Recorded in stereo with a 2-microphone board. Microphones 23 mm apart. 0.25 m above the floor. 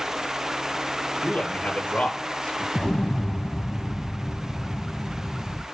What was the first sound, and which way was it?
A man speaking, 80° left.